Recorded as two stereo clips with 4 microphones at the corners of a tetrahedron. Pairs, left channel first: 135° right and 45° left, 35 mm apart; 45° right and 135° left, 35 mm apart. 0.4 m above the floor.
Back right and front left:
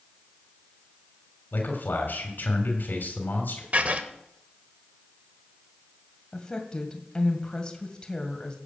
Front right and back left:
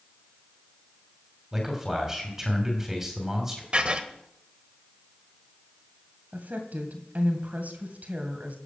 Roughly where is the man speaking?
Behind right.